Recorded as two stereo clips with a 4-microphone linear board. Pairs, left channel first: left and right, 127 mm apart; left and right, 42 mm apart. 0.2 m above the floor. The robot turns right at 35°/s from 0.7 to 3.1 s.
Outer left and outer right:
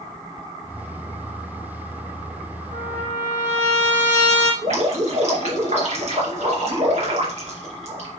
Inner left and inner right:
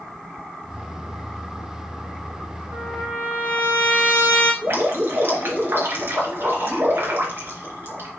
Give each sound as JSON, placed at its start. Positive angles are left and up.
{"t": 2.7, "sound": "a trumpet", "side_deg": -65, "distance_m": 3.0}
{"t": 4.6, "sound": "dripping", "side_deg": -65, "distance_m": 3.0}